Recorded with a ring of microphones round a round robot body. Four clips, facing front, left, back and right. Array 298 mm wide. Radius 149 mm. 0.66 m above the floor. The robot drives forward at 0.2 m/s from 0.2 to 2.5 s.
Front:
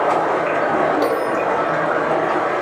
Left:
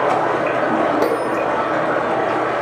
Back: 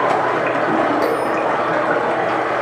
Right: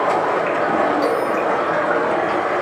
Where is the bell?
100° left, 0.9 m; by 1.4 s 105° left, 0.9 m.